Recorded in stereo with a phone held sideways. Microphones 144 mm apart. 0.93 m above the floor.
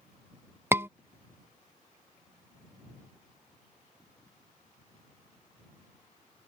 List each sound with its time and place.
0.7 s a scream: 15° right (ahead or behind)